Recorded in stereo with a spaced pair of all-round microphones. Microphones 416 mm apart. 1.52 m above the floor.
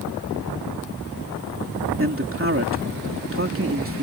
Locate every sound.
2.0 s a man speaking: 30° right (ahead or behind)